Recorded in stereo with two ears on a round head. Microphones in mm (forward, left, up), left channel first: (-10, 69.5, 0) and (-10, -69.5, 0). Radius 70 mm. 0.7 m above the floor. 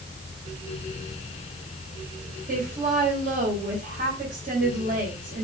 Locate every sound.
2.5 s a woman speaking: 55° right (ahead or behind), 3 m